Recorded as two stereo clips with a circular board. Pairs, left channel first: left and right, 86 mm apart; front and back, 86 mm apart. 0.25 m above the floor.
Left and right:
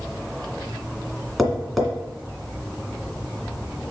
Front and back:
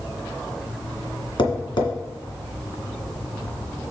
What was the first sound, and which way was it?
Tapping, straight ahead.